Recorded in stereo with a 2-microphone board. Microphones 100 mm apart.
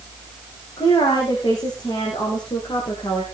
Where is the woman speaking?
40° left (ahead or behind), 7 m; by 3.2 s 50° left (ahead or behind), 4.5 m.